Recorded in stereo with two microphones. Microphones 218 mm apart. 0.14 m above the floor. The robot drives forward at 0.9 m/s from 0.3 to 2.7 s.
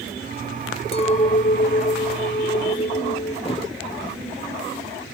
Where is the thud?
25° left (ahead or behind), 2.5 m.